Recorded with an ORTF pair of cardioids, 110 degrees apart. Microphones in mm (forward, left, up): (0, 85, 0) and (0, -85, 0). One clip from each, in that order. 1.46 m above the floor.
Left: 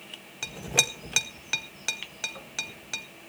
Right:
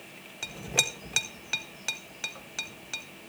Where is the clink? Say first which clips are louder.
Left 2 dB; 15° left, 1.0 m.